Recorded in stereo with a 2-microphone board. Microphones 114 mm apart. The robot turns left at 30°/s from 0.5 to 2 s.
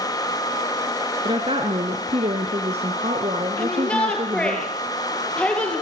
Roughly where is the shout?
Centre.